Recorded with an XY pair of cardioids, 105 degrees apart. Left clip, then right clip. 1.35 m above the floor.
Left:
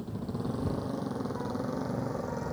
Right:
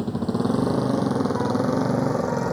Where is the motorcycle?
70° right; by 2.5 s 60° right.